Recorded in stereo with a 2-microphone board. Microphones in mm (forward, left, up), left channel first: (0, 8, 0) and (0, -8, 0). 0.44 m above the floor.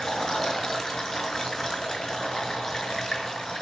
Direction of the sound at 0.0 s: 35° left (ahead or behind).